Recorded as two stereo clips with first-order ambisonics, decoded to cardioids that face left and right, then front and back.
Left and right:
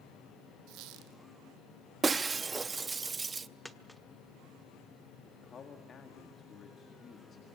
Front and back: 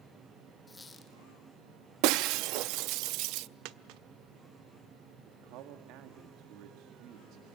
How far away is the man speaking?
About 1.9 m.